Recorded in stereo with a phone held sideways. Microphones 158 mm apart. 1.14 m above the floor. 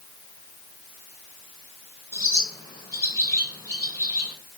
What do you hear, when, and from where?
2.1 s a bird: 20° left (ahead or behind), 4.5 m